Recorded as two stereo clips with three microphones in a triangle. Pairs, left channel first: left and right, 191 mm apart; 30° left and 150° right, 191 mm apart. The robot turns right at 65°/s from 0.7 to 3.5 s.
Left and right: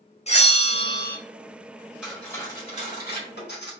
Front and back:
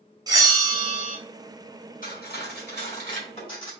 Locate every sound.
0.3 s a bell: 140° left, 0.9 m; by 1.2 s 175° left, 0.9 m
2.0 s cutlery clinking: 5° right, 1.9 m; by 3.7 s 90° left, 1.9 m